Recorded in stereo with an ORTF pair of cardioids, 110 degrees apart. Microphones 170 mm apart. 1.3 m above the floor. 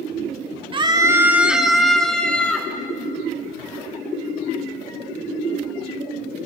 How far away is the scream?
About 1.5 m.